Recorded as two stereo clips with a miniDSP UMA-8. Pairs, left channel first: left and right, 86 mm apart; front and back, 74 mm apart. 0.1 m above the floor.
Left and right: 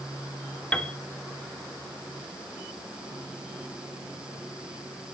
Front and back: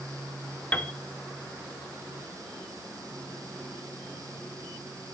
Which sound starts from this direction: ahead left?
A piano, at 0.7 s.